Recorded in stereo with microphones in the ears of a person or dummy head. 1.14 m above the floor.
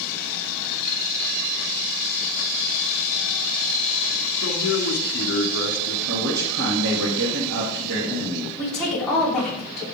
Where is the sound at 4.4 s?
70° left (ahead or behind), 2 m.